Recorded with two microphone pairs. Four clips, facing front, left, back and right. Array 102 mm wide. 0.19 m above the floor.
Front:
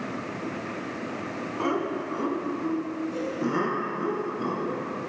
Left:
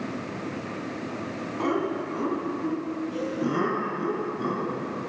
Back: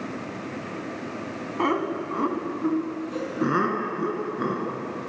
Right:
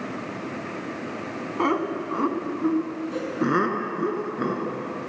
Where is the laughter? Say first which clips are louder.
Right 2 dB, back 3 dB; 125° right, 1.7 m; by 4.8 s 115° right, 3 m.